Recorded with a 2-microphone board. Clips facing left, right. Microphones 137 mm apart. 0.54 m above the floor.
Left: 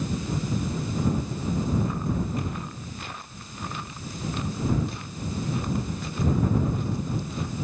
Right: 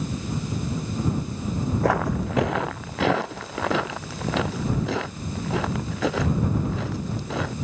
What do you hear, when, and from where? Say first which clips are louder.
1.8 s footsteps: right 6 dB; 75° right (ahead or behind); by 7.5 s 85° right